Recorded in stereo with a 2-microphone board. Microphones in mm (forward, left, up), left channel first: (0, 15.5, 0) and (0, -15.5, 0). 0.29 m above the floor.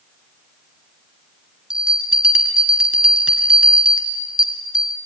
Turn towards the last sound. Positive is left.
turn(degrees=-25)  # may be behind; listen again after turning